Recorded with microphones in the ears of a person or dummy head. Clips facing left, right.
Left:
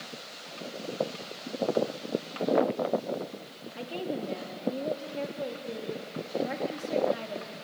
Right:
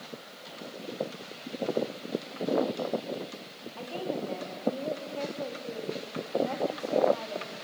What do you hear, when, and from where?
3.8 s a woman speaking: 25° left (ahead or behind), 3 m